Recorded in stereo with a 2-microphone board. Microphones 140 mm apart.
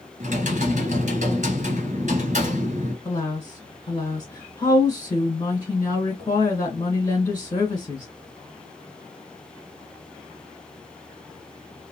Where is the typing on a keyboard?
60° right (ahead or behind), 1.7 m.